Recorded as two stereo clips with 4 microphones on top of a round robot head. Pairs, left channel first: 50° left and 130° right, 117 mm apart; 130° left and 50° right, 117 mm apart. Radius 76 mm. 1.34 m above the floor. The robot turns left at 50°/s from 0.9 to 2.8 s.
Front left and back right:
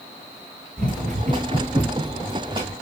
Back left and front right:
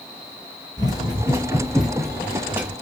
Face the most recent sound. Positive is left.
turn(degrees=-95)